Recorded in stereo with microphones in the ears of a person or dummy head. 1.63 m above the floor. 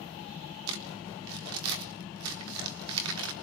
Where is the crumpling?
70° right (ahead or behind), 3.5 m.